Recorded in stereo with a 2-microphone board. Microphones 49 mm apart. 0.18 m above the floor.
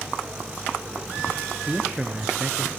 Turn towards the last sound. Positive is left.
turn(degrees=-10)  # may be behind; listen again after turning